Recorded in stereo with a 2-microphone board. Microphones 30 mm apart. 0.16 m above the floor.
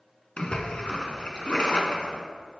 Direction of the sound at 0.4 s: 40° left (ahead or behind).